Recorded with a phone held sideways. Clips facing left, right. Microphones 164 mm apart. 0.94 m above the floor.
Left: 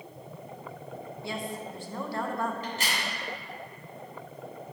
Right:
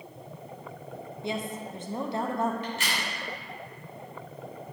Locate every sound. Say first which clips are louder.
1.2 s a woman speaking: right 3 dB; 20° right (ahead or behind), 0.6 m
2.6 s a crack: right 1 dB; 40° left (ahead or behind), 2.5 m